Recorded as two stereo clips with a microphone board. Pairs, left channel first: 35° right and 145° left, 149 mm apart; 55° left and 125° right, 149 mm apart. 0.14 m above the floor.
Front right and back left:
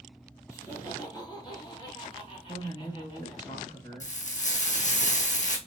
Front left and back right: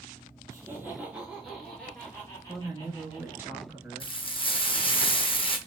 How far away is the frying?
About 0.9 m.